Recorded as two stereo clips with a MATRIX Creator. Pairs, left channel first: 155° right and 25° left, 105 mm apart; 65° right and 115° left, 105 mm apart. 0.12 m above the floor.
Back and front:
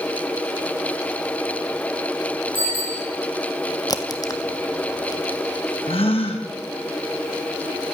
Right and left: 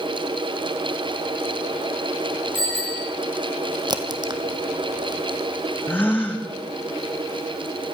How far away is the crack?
About 1.2 m.